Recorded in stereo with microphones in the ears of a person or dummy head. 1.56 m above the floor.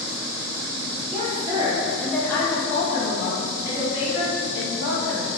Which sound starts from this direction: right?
A woman speaking, at 1.1 s.